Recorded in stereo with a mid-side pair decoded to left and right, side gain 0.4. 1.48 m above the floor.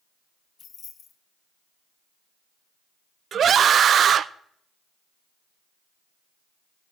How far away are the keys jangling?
About 1.6 m.